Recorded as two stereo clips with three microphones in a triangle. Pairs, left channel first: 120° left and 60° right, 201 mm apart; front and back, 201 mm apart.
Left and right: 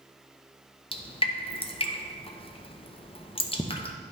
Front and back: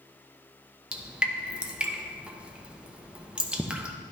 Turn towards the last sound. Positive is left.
turn(degrees=100)